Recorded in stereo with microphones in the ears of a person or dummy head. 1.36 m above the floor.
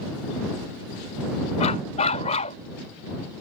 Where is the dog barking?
40° left (ahead or behind).